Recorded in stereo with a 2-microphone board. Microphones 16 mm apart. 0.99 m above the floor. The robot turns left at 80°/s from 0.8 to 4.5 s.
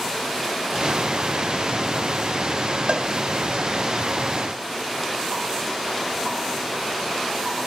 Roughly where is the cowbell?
Right.